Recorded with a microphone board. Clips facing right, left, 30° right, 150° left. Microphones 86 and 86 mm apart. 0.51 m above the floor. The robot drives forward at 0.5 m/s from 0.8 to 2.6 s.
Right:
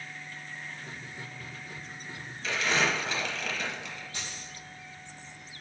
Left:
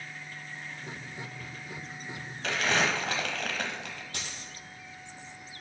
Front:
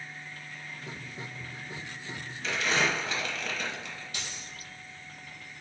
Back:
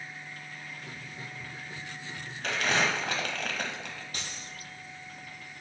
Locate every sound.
2.4 s crumpling: 115° left, 1.0 m; by 4.0 s 120° left, 1.1 m
4.1 s a dropped coin: 105° left, 1.7 m